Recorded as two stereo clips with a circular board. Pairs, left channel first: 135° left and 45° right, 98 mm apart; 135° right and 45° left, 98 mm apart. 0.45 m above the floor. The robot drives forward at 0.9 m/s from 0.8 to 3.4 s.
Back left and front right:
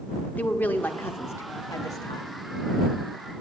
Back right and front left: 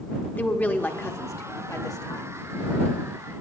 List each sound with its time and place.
0.4 s a woman speaking: straight behind, 1.1 m